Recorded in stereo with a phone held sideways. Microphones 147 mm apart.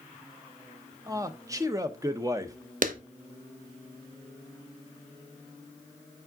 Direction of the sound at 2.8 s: 65° right (ahead or behind).